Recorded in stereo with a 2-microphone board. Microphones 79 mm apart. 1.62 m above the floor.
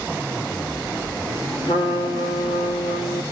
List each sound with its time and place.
1.6 s a trumpet: 70° left (ahead or behind), 3.5 m